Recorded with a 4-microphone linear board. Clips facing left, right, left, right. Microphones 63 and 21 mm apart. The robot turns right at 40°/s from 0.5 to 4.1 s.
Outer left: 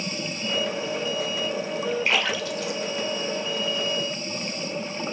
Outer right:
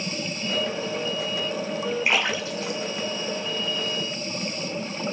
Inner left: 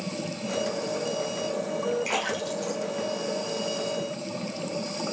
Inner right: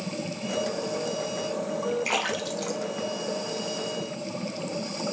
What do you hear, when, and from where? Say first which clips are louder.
2.0 s a splash: even, inner right 1 dB; 15° right (ahead or behind), 0.5 m; by 3.8 s 80° right, 0.5 m